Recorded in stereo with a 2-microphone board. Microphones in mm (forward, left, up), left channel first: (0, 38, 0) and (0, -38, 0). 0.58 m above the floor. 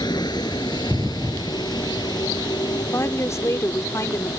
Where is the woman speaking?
45° left (ahead or behind).